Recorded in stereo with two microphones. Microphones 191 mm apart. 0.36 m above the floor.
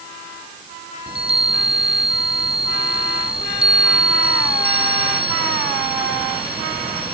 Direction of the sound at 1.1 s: 30° right (ahead or behind).